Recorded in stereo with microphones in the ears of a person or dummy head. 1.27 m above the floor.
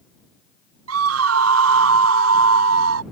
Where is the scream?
85° right.